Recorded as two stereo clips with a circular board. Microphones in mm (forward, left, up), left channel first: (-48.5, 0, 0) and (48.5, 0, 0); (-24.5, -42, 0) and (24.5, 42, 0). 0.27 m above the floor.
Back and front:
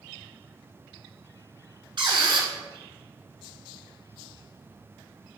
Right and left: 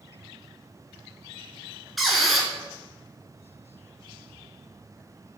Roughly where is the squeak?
Ahead right.